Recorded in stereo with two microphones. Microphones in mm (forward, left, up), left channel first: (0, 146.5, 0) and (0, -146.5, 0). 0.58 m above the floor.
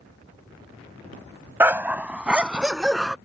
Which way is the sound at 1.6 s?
10° right (ahead or behind).